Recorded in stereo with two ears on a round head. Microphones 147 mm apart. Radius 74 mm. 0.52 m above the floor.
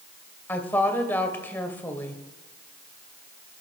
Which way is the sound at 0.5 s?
10° left (ahead or behind).